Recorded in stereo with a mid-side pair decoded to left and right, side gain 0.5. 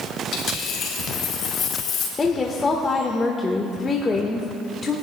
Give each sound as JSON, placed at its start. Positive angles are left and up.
{"t": 0.3, "sound": "a dropped coin", "azimuth_deg": 65, "distance_m": 3.5}
{"t": 2.2, "sound": "a woman speaking", "azimuth_deg": 30, "distance_m": 1.4}